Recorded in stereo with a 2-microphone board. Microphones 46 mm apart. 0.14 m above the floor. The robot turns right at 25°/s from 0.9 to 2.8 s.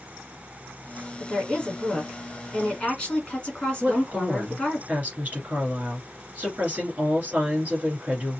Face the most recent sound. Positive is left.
turn(degrees=-35)  # may be behind; listen again after turning